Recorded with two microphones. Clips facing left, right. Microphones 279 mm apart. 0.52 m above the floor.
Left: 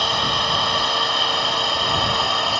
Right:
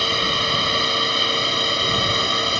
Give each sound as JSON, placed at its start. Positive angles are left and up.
{"t": 0.0, "sound": "a drone", "side_deg": -25}